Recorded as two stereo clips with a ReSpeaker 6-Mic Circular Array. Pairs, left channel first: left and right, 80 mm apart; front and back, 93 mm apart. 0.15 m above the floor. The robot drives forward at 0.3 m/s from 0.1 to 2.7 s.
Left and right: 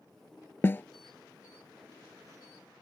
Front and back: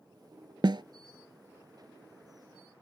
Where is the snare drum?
150° left.